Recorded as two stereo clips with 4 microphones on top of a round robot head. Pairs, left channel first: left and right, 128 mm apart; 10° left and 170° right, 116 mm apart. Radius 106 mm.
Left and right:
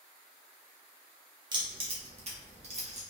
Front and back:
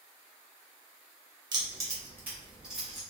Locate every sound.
1.5 s keys jangling: 130° right, 0.9 m; by 3.0 s 80° right, 1.3 m